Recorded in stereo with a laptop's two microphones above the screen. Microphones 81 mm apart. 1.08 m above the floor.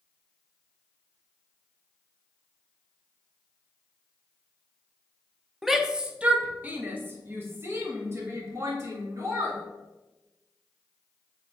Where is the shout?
5° right (ahead or behind), 0.8 m; by 9.6 s 40° right (ahead or behind), 3 m.